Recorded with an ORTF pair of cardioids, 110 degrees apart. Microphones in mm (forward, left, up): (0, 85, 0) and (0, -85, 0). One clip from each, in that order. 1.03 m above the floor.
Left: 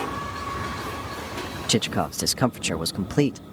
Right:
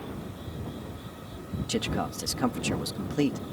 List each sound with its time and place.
1.7 s a man speaking: 60° left